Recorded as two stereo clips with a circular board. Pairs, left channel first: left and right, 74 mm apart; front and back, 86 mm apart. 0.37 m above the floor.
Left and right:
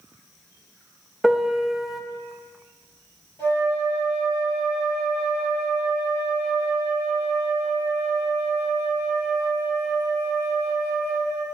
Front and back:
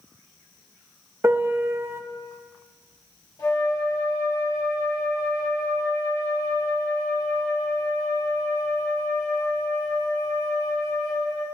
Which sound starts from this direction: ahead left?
A flute, at 3.4 s.